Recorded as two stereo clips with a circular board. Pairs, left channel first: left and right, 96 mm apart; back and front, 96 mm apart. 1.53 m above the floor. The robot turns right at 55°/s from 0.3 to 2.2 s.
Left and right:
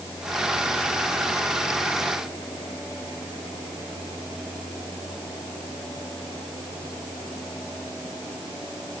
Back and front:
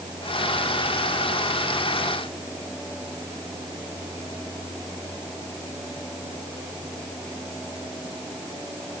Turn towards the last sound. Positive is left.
No sound to turn to.